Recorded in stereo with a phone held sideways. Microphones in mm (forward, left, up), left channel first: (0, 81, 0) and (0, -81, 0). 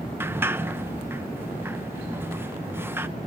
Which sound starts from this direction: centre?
A sliding door, at 0.2 s.